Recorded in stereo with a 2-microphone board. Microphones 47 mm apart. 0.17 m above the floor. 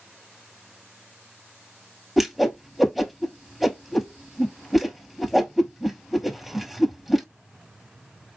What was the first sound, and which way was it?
A whoosh, 5° right (ahead or behind).